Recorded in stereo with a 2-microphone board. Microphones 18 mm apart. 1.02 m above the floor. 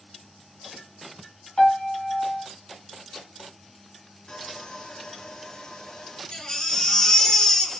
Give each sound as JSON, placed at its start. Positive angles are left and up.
{"t": 1.6, "sound": "a piano", "side_deg": 60, "distance_m": 3.0}
{"t": 4.3, "sound": "sawing", "side_deg": 65, "distance_m": 2.0}
{"t": 6.3, "sound": "a baby crying", "side_deg": 50, "distance_m": 2.5}